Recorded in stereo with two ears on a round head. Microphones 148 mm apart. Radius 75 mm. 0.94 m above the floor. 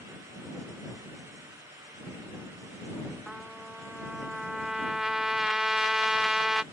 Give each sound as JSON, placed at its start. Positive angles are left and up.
{"t": 3.3, "sound": "a trumpet", "side_deg": -5}